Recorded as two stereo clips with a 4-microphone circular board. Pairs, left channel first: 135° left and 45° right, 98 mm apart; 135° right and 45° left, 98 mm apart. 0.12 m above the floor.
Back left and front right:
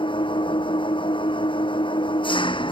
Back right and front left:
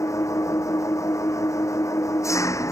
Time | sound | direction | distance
0.0 | an engine running | 165° left | ?